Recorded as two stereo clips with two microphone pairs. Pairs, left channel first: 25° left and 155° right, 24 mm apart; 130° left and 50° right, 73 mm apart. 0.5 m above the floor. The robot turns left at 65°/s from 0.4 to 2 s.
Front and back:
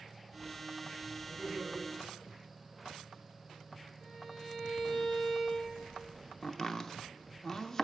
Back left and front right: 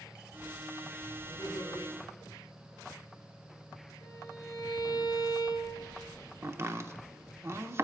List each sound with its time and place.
1.3 s laughter: 140° left, 4 m; by 1.8 s 105° left, 4 m
4.0 s a violin: 100° left, 3 m
6.4 s chopping: 30° right, 0.6 m